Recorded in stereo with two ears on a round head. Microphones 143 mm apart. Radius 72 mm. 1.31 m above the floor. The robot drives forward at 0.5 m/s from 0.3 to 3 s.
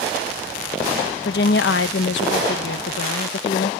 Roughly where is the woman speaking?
Left.